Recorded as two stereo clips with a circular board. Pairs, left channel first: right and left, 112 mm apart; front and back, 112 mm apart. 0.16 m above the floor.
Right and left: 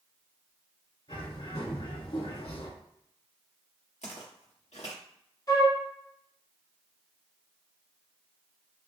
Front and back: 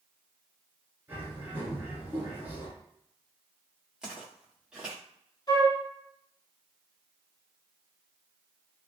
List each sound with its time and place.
1.1 s a bird: 110° right, 1.4 m
4.0 s footsteps: 95° right, 1.2 m
5.5 s a flute: 45° right, 1.2 m